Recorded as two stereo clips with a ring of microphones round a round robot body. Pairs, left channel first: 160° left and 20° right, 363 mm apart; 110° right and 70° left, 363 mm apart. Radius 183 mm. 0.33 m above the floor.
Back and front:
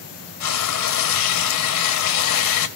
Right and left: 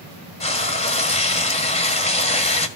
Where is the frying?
Straight behind, 1.8 m.